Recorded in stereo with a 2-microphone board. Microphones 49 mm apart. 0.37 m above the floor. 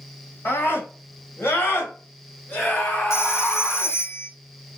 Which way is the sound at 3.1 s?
70° left (ahead or behind).